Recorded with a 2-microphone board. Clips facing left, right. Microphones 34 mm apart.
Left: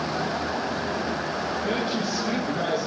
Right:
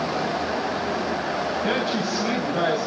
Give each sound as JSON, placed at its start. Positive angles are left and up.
{"t": 1.6, "sound": "a woman speaking", "side_deg": -90, "distance_m": 5.0}